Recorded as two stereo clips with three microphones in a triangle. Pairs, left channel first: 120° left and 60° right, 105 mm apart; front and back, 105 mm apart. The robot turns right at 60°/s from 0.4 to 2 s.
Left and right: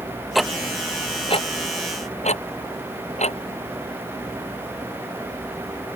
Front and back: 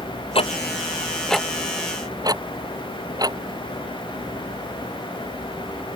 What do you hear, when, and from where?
0.3 s ticking: 30° left; by 3.4 s 125° left